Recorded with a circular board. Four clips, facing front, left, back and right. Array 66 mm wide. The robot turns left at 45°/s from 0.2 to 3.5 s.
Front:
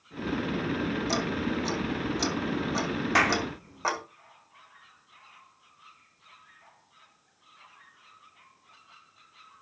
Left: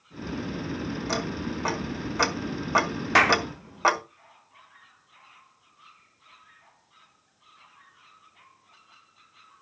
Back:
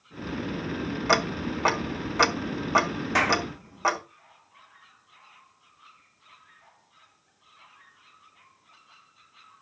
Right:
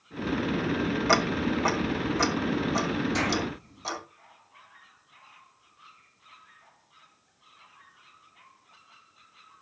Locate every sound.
1.1 s ticking: 150° right, 1.3 m; by 4.0 s 100° left, 1.3 m
3.1 s a clap: 85° left, 1.7 m; by 3.4 s 70° left, 1.7 m